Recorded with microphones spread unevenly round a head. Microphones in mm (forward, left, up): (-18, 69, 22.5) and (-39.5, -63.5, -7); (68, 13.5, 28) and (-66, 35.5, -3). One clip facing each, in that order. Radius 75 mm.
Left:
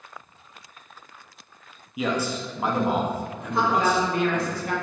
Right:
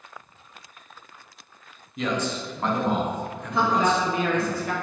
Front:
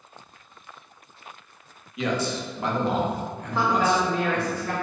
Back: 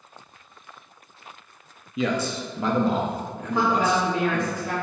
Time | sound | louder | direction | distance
2.0 | a man speaking | left 1 dB, back 1 dB | 160° left | 0.8 m
3.5 | a woman speaking | even, back 1 dB | 110° right | 0.9 m